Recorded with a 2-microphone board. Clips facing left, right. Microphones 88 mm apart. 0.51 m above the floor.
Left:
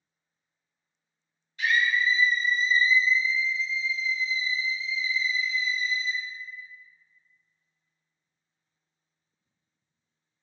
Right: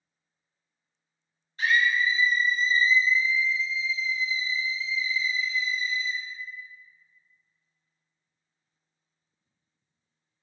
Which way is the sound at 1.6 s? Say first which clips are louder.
Right 1 dB; 40° right (ahead or behind).